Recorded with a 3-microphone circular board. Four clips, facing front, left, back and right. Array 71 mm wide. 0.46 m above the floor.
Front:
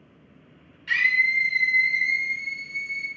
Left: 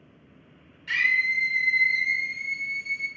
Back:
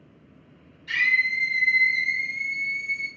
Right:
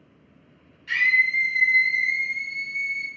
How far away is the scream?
About 1.1 m.